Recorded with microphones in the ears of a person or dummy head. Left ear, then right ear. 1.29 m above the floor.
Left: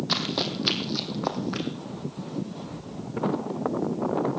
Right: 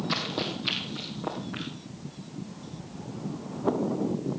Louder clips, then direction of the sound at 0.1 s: Left 4 dB; 20° left (ahead or behind).